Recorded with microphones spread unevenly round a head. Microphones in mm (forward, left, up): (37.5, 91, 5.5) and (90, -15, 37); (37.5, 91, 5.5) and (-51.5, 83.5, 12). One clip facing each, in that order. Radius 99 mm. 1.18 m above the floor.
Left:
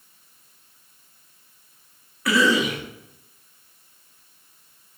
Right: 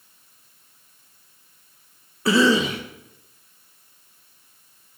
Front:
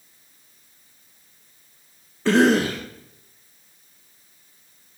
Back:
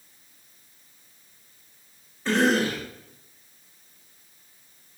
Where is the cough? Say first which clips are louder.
Right 2 dB, front 5 dB; straight ahead, 1.0 m.